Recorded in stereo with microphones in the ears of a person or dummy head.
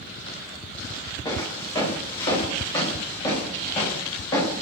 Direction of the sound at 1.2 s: 25° left (ahead or behind).